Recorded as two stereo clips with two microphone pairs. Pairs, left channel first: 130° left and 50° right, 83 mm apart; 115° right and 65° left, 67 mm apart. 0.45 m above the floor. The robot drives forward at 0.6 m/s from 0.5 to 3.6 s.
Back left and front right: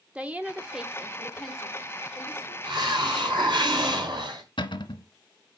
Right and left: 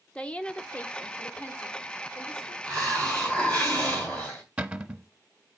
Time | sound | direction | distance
0.1 | a woman speaking | 85° right | 0.7 m
2.6 | a hiss | 35° right | 3 m
4.6 | a cupboard door | 145° left | 0.7 m